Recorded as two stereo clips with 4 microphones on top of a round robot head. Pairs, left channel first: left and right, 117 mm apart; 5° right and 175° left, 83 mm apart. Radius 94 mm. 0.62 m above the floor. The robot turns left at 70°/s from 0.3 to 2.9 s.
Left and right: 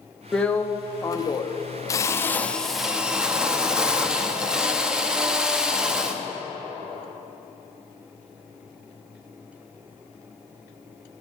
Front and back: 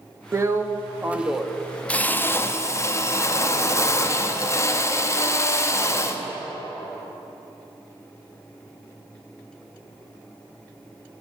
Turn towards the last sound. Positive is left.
turn(degrees=-10)